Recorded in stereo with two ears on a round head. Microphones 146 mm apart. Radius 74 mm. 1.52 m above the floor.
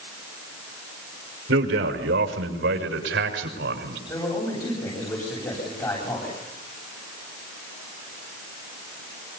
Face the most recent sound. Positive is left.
turn(degrees=25)  # may be behind; listen again after turning